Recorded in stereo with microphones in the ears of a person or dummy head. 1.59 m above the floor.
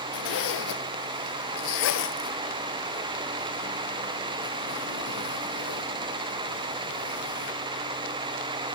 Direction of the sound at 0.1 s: 65° left (ahead or behind).